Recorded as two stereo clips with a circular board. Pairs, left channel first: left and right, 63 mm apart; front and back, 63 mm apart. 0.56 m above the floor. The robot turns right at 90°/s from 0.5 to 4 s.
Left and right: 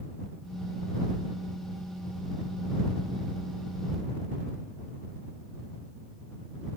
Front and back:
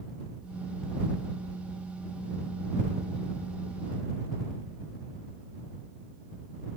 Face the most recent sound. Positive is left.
No sound to turn to.